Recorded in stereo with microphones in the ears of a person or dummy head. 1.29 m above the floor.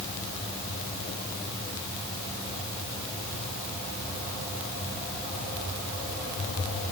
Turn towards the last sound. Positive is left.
No sound to turn to.